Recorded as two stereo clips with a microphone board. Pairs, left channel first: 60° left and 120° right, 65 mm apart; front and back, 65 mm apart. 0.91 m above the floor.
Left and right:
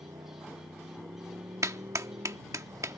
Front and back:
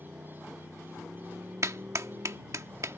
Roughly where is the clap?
Behind right.